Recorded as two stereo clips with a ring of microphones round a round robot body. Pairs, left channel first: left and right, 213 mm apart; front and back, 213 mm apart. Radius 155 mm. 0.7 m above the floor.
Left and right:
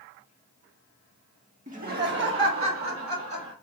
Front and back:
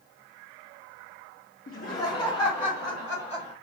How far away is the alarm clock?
No alarm clock in this recording.